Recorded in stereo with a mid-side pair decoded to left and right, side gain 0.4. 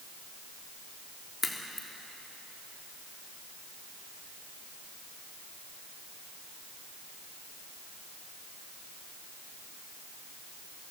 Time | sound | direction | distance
1.4 | a crack | 35° left | 3 m